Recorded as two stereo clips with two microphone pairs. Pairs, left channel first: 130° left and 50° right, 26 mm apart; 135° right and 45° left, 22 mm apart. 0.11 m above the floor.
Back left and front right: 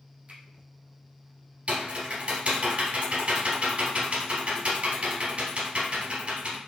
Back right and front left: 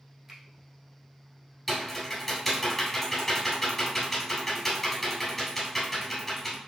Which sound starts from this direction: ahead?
A finger snap, at 0.3 s.